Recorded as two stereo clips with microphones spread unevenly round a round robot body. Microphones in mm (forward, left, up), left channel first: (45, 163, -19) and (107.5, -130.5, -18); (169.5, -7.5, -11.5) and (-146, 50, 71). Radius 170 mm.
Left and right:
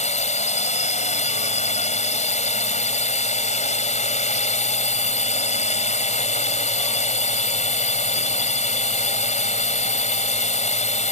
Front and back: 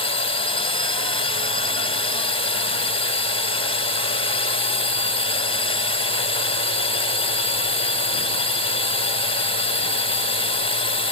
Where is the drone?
45° left.